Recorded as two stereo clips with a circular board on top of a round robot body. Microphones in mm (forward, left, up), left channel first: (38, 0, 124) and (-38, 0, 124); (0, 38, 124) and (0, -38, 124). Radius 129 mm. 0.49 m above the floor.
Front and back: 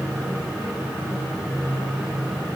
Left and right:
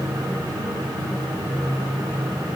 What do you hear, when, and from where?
Only background noise.